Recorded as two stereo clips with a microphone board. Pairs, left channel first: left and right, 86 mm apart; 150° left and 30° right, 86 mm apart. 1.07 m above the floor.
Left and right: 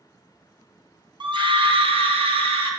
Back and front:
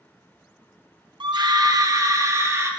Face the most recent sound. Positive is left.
turn(degrees=-90)